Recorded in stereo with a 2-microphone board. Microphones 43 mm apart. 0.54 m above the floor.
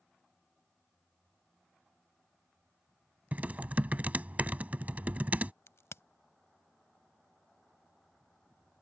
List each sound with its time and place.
3.3 s typing on a keyboard: 35° right (ahead or behind)
5.7 s a crack: 75° left (ahead or behind)